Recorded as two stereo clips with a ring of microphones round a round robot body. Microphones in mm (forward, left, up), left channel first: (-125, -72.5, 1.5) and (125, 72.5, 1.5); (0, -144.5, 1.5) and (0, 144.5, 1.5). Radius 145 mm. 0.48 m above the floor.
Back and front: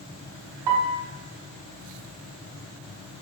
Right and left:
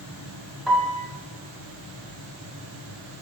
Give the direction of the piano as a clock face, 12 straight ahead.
12 o'clock.